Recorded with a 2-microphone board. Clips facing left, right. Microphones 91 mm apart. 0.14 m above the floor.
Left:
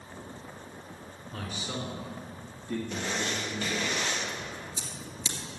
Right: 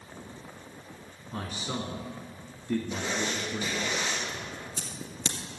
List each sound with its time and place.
1.3 s a man speaking: 25° right (ahead or behind), 1.5 m; by 3.9 s 45° right (ahead or behind), 2 m
2.9 s writing: 15° right (ahead or behind), 3.5 m
4.3 s scissors: 60° right (ahead or behind), 1.9 m